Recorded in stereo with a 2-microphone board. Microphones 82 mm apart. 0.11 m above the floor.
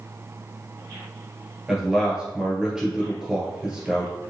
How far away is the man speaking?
About 1.7 m.